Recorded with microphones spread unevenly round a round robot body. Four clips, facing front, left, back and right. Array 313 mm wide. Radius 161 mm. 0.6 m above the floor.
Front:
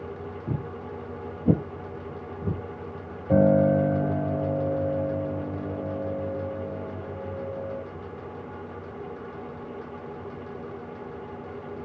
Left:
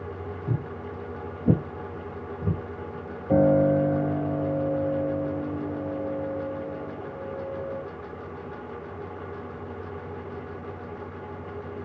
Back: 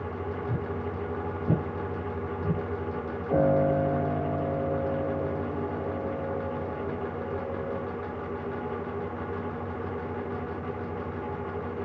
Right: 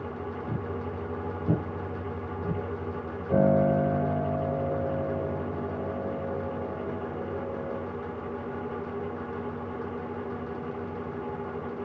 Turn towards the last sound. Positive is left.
turn(degrees=35)